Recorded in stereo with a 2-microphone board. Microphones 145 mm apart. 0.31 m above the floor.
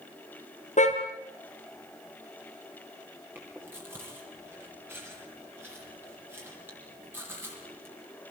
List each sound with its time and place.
0.8 s a car horn: 50° left (ahead or behind), 3.5 m
3.4 s chewing: 15° right (ahead or behind), 7 m